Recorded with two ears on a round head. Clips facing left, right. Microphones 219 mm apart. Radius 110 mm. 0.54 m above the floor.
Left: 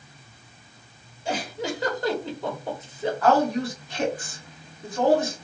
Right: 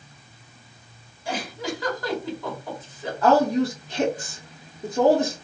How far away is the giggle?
About 1.2 m.